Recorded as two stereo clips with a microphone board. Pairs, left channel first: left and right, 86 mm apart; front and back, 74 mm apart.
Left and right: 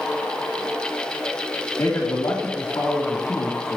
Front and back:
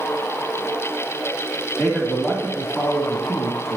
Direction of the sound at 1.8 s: 85° left.